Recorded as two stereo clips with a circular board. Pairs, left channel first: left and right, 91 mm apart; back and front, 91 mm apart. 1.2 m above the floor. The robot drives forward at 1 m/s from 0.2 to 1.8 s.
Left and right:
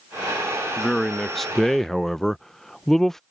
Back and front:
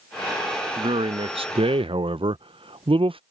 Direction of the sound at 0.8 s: Straight ahead.